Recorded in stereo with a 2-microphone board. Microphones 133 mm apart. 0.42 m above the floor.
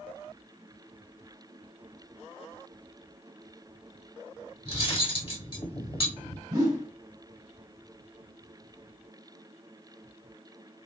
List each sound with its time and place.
4.7 s cutlery clinking: 40° left (ahead or behind), 1.0 m
6.5 s a whoosh: 30° right (ahead or behind), 1.2 m